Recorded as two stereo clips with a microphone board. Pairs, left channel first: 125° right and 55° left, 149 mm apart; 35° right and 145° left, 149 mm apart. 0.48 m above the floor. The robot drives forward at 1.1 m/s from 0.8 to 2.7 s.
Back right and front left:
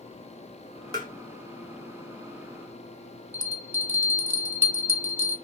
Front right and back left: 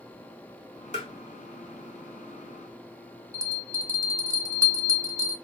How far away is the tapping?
About 1.2 m.